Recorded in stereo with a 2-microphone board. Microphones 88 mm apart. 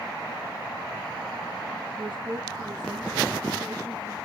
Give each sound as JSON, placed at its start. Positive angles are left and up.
{"t": 2.0, "sound": "a woman speaking", "side_deg": -60, "distance_m": 2.0}